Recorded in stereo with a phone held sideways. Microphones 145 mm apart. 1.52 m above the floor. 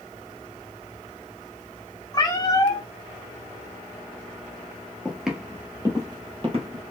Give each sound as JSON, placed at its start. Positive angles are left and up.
{"t": 2.1, "sound": "a cat meowing", "side_deg": 25, "distance_m": 1.3}
{"t": 5.0, "sound": "footsteps", "side_deg": 5, "distance_m": 1.7}